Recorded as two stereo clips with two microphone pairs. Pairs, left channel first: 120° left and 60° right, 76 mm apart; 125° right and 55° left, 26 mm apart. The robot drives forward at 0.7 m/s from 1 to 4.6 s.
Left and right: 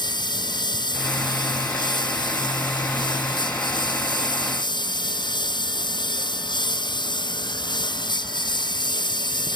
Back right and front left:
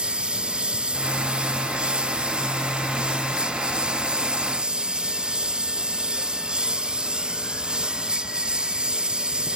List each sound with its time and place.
0.0 s a lawn mower: 105° left; by 9.6 s 110° left